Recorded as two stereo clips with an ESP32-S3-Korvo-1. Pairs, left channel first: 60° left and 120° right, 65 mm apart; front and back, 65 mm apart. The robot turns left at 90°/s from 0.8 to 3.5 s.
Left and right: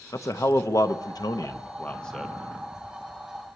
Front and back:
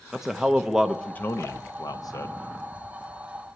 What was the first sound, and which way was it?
A man speaking, 95° left.